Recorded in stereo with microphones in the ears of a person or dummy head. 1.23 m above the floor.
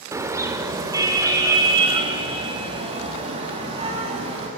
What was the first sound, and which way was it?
A car horn, 15° right (ahead or behind).